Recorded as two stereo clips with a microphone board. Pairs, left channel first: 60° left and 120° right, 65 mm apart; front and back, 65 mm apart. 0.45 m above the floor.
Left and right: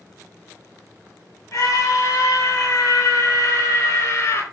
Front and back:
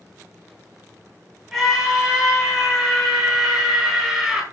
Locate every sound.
1.5 s a scream: 100° left, 3.5 m